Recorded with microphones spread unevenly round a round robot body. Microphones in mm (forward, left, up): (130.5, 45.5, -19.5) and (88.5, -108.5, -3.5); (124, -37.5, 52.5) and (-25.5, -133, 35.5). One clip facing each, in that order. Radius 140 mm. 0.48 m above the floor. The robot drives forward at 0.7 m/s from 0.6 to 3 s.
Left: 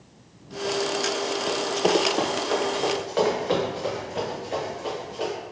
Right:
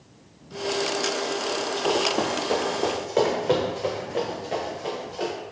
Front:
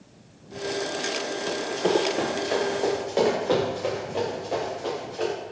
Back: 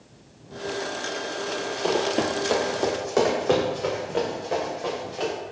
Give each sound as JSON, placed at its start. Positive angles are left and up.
{"t": 1.5, "sound": "running footsteps", "azimuth_deg": 55, "distance_m": 0.9}